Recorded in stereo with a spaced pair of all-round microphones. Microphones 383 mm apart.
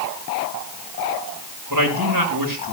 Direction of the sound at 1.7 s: 60° right (ahead or behind).